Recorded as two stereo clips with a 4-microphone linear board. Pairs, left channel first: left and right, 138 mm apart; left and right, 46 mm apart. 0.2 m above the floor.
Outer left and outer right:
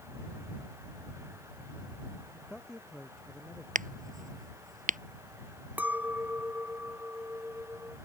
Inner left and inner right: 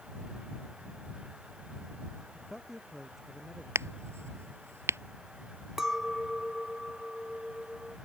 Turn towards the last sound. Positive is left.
turn(degrees=-15)  # may be behind; listen again after turning